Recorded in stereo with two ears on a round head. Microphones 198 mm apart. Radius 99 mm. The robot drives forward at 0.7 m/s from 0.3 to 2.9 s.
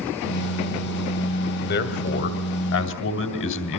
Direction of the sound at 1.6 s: 45° left (ahead or behind).